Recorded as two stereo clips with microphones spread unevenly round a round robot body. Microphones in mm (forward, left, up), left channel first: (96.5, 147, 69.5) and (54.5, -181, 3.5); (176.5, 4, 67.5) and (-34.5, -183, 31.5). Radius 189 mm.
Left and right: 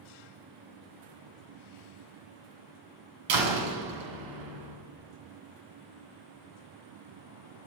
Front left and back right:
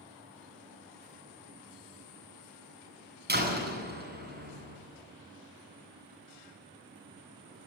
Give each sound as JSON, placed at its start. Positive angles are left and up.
{"t": 3.3, "sound": "a door slam", "azimuth_deg": -85, "distance_m": 7.5}